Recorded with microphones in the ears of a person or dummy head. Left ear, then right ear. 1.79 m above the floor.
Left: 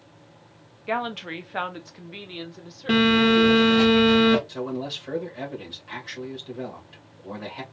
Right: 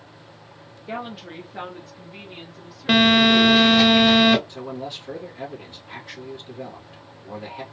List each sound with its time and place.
0.9 s a woman speaking: 20° left (ahead or behind), 0.6 m; by 3.9 s 60° left (ahead or behind), 2 m
2.9 s a phone buzzing: 35° right (ahead or behind), 0.8 m
4.5 s a man speaking: 55° left (ahead or behind), 1.8 m